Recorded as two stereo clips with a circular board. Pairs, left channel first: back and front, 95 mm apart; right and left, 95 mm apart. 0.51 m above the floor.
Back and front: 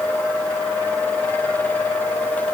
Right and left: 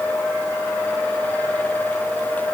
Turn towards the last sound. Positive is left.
No sound to turn to.